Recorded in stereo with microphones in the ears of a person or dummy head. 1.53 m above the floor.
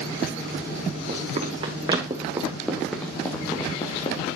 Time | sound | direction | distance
1.1 | running footsteps | 45° right (ahead or behind) | 3.5 m